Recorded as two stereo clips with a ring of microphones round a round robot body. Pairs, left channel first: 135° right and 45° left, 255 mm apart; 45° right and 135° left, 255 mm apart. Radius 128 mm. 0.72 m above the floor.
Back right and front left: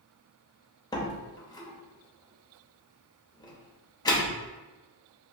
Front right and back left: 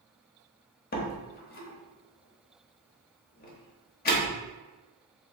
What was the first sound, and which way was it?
A door slam, 70° right.